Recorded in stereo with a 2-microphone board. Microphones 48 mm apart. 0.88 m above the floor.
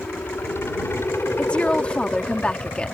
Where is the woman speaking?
25° left (ahead or behind).